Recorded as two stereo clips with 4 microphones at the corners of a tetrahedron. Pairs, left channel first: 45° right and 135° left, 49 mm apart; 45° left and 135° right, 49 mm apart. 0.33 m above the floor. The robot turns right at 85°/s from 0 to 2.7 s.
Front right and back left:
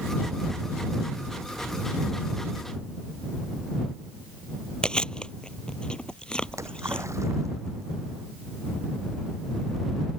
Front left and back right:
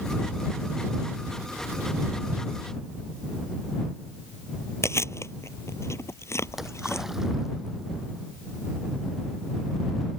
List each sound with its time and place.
4.8 s chewing: 25° left
6.5 s a splash: 140° left